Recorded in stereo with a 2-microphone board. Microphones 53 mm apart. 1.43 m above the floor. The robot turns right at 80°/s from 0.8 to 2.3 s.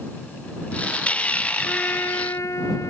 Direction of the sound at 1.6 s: 20° left.